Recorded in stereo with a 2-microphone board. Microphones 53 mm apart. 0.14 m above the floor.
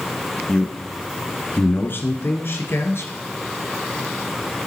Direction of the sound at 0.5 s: 20° left (ahead or behind).